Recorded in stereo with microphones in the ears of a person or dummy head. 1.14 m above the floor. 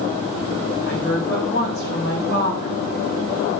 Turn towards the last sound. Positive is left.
turn(degrees=60)  # may be behind; listen again after turning